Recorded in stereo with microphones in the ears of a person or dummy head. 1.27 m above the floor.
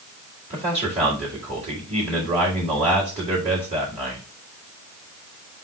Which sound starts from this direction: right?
A man speaking, at 0.5 s.